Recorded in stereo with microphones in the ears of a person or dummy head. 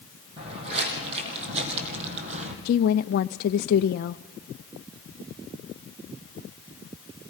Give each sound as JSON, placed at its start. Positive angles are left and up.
{"t": 0.4, "sound": "footsteps", "side_deg": -30, "distance_m": 5.0}
{"t": 2.6, "sound": "a woman speaking", "side_deg": 55, "distance_m": 0.5}